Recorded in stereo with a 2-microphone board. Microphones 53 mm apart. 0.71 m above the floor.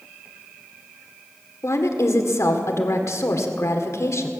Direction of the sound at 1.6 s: 65° left (ahead or behind).